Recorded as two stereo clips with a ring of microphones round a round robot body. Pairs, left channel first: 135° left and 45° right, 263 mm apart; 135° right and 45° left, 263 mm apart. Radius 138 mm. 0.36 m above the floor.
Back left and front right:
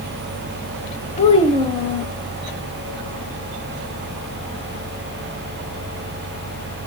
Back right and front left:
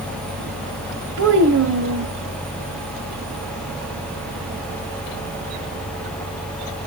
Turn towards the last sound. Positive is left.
turn(degrees=75)